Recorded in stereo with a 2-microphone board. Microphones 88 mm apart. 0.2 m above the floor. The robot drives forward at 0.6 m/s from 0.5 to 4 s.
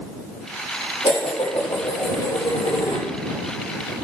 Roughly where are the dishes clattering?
Left.